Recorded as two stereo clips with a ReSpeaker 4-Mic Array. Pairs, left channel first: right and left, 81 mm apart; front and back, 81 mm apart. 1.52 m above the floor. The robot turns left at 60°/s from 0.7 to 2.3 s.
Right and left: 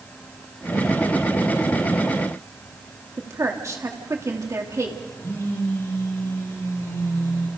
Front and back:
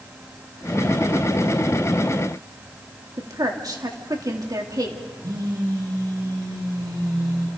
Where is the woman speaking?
140° left, 3 m.